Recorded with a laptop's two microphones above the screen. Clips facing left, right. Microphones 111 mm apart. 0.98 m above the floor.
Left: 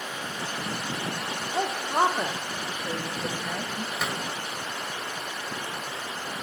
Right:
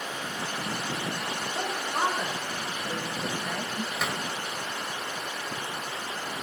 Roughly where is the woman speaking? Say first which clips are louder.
Left 7 dB; left.